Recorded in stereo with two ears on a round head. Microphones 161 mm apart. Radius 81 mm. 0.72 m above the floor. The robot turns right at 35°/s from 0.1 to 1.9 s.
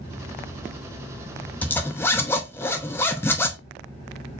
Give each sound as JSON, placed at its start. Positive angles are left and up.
{"t": 1.6, "sound": "a zipper", "side_deg": 10, "distance_m": 0.6}